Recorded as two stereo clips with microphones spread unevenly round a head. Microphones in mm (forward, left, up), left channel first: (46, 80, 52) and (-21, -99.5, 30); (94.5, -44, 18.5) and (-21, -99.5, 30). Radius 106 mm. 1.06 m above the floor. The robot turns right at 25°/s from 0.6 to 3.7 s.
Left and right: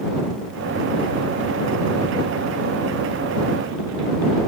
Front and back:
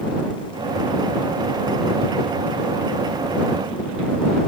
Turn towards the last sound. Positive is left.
No sound to turn to.